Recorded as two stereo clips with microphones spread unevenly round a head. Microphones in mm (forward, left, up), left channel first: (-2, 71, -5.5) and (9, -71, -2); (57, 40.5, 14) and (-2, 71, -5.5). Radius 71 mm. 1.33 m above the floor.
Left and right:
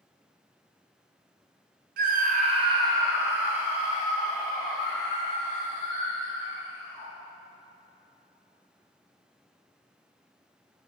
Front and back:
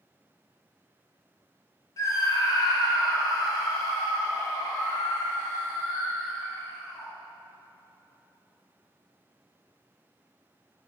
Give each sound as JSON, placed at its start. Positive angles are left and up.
{"t": 2.0, "sound": "a scream", "azimuth_deg": -75, "distance_m": 0.5}